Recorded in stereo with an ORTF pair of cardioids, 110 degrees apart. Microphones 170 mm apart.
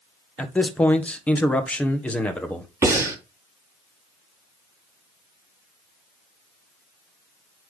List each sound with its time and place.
0.4 s a man speaking: 10° left, 1.5 m
2.8 s breathing: 15° right, 4 m